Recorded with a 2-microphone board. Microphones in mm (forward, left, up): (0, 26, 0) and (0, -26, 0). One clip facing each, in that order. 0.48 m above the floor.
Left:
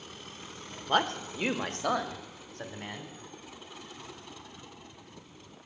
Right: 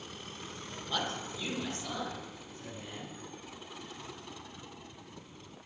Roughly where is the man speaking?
Left.